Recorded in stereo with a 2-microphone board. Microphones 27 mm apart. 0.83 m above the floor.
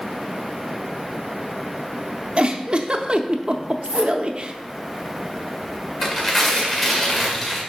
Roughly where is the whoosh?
Right.